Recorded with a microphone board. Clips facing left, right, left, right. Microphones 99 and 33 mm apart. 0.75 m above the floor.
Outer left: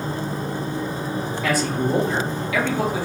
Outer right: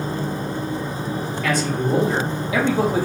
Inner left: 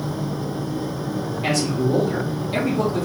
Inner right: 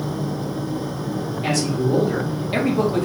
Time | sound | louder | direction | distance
1.4 | a man speaking | even, even | 5° left (ahead or behind) | 1.3 m